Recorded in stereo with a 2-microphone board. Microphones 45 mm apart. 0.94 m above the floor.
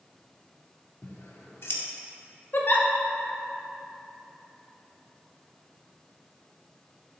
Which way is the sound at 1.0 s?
65° left (ahead or behind).